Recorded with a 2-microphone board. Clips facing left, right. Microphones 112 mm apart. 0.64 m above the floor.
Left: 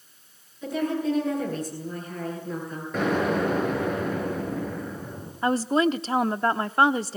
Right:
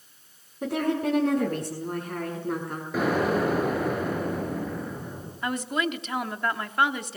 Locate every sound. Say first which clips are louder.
0.6 s a woman speaking: even; 65° right (ahead or behind), 8.5 m
2.9 s an explosion: even; 5° right (ahead or behind), 7 m
5.4 s a woman speaking: left 7 dB; 35° left (ahead or behind), 0.9 m